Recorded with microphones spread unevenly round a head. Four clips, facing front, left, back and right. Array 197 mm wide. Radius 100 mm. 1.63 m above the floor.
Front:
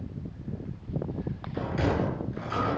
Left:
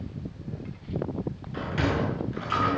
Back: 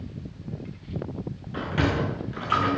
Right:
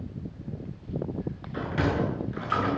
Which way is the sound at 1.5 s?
140° right.